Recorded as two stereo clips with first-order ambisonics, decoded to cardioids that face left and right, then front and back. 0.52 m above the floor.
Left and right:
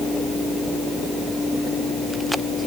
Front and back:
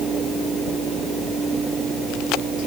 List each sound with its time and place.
Only background noise.